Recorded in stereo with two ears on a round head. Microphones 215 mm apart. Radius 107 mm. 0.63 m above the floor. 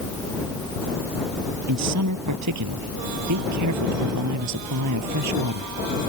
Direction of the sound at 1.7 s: 75° right (ahead or behind).